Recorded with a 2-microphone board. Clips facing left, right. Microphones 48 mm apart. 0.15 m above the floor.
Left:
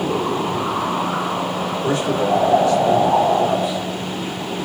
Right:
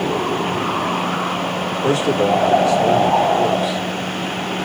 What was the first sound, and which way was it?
A man speaking, 75° right (ahead or behind).